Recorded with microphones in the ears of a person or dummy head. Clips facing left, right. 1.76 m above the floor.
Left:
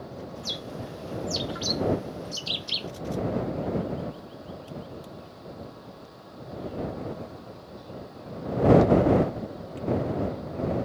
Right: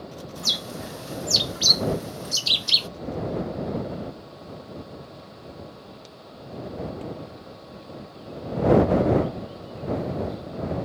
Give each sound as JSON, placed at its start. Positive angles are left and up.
{"t": 0.4, "sound": "a bird", "side_deg": -65}